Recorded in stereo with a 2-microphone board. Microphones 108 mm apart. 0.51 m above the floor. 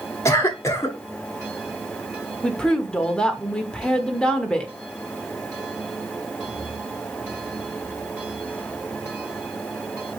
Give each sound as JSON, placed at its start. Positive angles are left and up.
{"t": 0.2, "sound": "a cough", "side_deg": 25, "distance_m": 1.3}
{"t": 2.4, "sound": "a woman speaking", "side_deg": 10, "distance_m": 1.0}